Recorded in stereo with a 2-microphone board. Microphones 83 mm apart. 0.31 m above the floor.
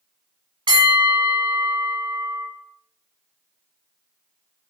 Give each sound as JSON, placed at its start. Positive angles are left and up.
{"t": 0.7, "sound": "a bell", "side_deg": -70, "distance_m": 1.0}